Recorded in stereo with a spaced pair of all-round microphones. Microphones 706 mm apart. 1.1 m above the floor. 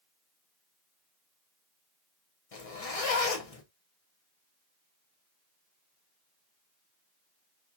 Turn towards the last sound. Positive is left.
turn(degrees=55)  # may be behind; listen again after turning